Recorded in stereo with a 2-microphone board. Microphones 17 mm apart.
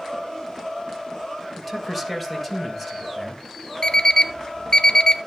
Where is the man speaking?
5° right (ahead or behind), 2 m; by 3.4 s centre (ahead or behind), 3.5 m.